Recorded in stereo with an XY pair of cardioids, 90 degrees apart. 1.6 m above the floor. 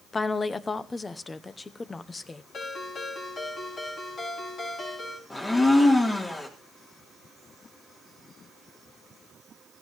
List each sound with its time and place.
0.1 s a woman speaking: 30° left, 1.0 m
2.5 s a ringtone: 55° left, 6 m
5.3 s a blender: 30° left, 3.5 m